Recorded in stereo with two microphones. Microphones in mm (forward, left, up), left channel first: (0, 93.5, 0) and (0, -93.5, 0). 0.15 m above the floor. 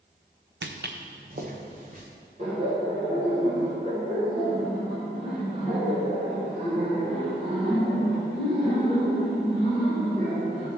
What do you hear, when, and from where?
0.6 s footsteps: 75° right (ahead or behind), 0.6 m; by 2.0 s 45° right (ahead or behind), 2.5 m
2.4 s laughter: 40° right (ahead or behind), 2 m